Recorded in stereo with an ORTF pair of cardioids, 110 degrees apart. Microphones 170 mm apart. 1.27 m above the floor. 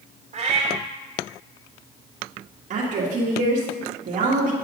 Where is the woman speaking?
45° right, 1.7 m.